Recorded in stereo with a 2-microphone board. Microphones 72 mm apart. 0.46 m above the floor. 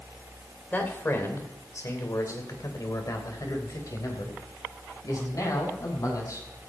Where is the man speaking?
30° left (ahead or behind), 2 m; by 6.5 s 55° left (ahead or behind), 4.5 m.